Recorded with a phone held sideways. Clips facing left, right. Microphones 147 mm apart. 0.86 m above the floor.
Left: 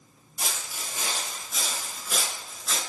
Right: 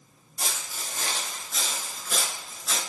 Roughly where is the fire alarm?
I don't hear a fire alarm.